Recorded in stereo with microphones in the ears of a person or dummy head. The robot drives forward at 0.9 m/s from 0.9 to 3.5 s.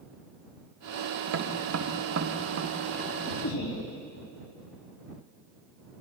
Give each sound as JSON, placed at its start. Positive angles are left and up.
{"t": 1.3, "sound": "tapping", "side_deg": -75, "distance_m": 1.6}
{"t": 3.4, "sound": "laughter", "side_deg": 70, "distance_m": 5.0}